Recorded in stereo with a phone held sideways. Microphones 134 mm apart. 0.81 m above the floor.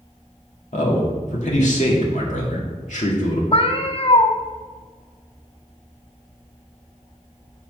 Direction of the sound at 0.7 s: 65° left (ahead or behind).